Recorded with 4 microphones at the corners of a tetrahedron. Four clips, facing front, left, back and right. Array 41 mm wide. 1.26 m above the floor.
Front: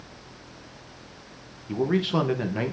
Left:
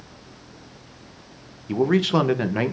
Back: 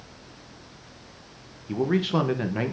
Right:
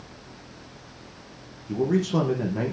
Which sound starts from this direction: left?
A man speaking, at 1.7 s.